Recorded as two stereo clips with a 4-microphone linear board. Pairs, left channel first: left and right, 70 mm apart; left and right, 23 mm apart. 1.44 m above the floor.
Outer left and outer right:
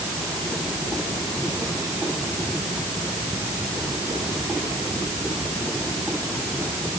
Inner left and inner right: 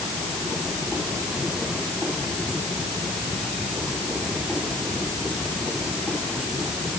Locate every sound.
Only background noise.